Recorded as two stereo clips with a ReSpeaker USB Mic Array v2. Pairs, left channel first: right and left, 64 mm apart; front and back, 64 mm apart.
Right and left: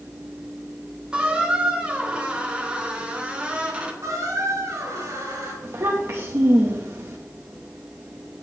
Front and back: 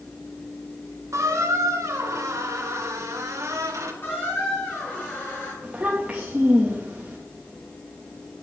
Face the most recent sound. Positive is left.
turn(degrees=115)